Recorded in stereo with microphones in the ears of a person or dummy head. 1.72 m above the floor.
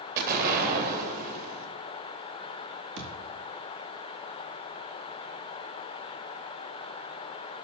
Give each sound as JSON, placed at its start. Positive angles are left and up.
{"t": 0.2, "sound": "an explosion", "side_deg": -50, "distance_m": 2.5}
{"t": 3.0, "sound": "a thud", "side_deg": -65, "distance_m": 3.5}